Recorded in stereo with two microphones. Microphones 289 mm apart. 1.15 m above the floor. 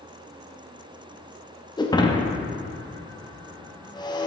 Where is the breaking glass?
15° left (ahead or behind), 0.6 m.